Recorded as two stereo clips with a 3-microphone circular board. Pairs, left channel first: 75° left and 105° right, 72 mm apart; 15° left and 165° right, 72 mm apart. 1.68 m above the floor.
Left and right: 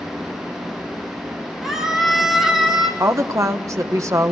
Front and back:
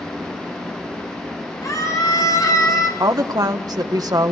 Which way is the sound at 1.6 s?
20° right.